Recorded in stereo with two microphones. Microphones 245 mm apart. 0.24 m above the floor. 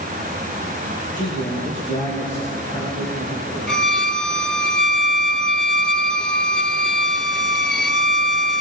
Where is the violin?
45° left (ahead or behind), 0.6 m.